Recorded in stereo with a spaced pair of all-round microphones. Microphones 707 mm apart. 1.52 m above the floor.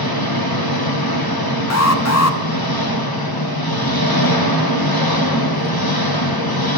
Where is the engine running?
30° left (ahead or behind), 1.1 m.